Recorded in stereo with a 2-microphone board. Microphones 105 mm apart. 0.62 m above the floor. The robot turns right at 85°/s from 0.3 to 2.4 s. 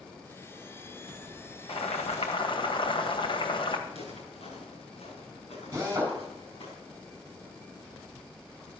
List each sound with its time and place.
1.7 s boiling: 60° left, 2 m; by 3.8 s 125° left, 2 m
3.9 s footsteps: 75° left (ahead or behind), 5.5 m; by 6.7 s 70° left (ahead or behind), 7 m
5.7 s a drill: 25° right (ahead or behind), 4.5 m